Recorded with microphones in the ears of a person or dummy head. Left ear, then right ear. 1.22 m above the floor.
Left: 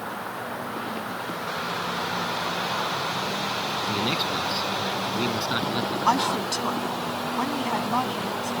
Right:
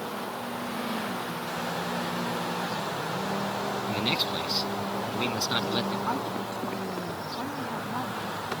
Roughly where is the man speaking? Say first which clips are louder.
Left 1 dB; right.